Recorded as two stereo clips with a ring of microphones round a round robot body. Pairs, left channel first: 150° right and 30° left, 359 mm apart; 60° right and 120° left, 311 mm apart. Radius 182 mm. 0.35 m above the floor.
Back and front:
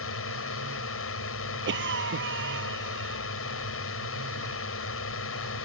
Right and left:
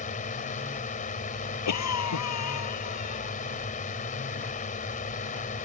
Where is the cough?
30° right.